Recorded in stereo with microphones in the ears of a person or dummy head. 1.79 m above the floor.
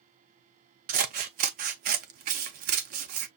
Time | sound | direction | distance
0.9 | scissors | 50° right (ahead or behind) | 0.7 m